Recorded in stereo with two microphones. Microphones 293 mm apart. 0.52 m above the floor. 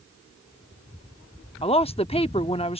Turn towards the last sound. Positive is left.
turn(degrees=20)  # may be behind; listen again after turning